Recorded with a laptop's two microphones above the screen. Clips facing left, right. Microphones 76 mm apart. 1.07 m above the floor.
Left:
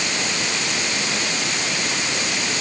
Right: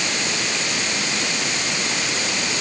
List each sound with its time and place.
Only background noise.